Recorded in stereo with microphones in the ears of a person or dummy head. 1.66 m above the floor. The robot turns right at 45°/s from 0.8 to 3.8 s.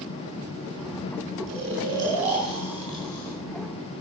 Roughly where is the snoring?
Right.